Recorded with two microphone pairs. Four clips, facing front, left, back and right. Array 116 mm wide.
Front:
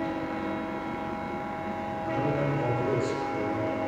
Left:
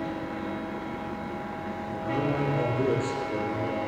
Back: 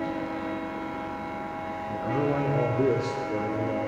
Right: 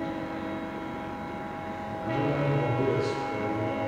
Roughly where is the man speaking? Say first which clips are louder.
Even, back 3 dB; behind.